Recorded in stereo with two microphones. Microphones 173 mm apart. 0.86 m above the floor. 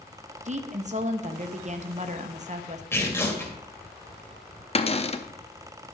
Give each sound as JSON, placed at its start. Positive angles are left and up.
{"t": 0.5, "sound": "a woman speaking", "side_deg": -45, "distance_m": 0.7}
{"t": 2.9, "sound": "tearing paper", "side_deg": 15, "distance_m": 1.9}
{"t": 4.8, "sound": "a cupboard door", "side_deg": 35, "distance_m": 0.5}